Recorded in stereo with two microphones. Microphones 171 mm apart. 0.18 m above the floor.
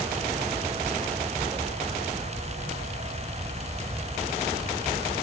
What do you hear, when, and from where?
Only background noise.